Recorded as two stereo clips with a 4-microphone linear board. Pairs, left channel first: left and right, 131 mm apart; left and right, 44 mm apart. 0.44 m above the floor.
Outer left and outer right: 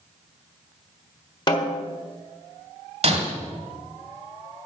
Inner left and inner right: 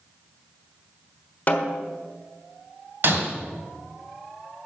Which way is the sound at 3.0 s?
55° right (ahead or behind).